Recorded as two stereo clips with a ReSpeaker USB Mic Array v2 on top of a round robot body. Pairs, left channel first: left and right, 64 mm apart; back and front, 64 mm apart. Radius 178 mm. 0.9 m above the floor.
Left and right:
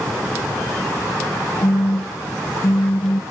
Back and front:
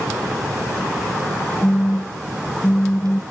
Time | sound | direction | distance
1.6 | a phone buzzing | 120° left | ?